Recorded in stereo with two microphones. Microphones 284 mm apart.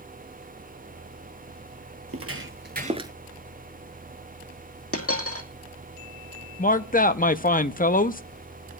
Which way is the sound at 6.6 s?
30° left (ahead or behind).